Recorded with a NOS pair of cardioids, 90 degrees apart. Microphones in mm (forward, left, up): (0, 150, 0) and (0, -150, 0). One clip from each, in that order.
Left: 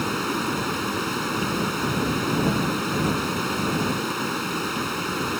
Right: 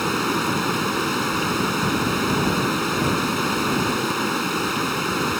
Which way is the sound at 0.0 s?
25° right.